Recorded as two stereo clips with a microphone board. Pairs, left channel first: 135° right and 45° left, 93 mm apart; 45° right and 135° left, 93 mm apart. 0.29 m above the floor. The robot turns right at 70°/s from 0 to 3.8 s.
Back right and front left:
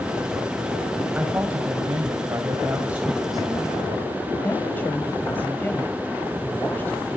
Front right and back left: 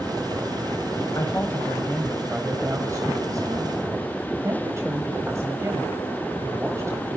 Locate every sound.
1.1 s a woman speaking: 20° right, 1.9 m; by 7.2 s 170° left, 1.9 m